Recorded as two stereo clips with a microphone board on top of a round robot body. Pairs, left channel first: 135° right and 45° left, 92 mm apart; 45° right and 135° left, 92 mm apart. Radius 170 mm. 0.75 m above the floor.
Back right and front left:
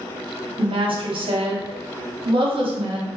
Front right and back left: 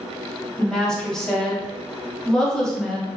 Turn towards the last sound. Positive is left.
turn(degrees=40)